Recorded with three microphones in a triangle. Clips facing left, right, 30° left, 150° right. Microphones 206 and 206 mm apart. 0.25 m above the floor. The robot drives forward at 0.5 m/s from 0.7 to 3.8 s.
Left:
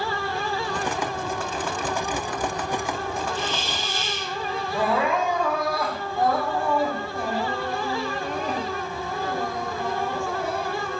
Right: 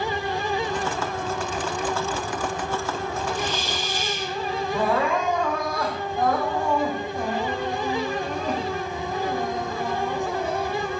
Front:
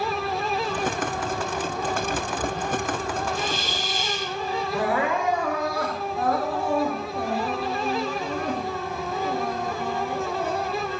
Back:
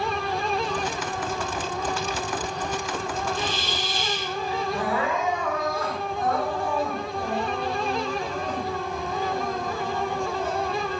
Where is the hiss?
15° right, 4 m.